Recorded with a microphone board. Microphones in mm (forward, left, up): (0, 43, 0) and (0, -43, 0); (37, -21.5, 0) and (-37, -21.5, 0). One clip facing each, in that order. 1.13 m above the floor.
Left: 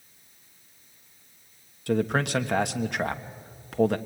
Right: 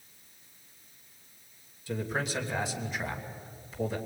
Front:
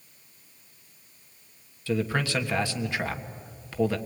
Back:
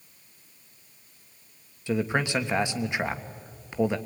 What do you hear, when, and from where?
1.9 s a man speaking: 110° left, 1.3 m